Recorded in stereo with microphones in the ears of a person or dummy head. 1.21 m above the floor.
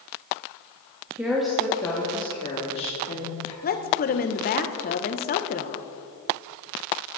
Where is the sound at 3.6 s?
45° left (ahead or behind), 1.2 m.